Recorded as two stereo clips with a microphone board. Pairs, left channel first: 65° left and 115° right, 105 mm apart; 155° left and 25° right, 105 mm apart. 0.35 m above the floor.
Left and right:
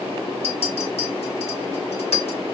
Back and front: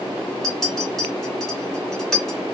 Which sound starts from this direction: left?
A clink, at 0.4 s.